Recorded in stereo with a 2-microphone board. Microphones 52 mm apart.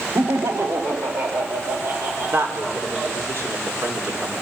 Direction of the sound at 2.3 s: 60° right (ahead or behind).